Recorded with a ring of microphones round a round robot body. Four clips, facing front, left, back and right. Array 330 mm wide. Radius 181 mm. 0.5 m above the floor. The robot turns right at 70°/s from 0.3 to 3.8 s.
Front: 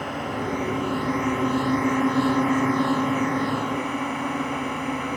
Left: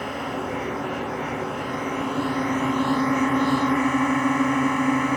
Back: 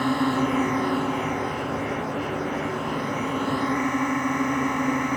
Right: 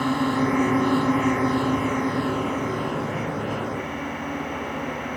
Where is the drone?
135° right; by 5.2 s 110° left.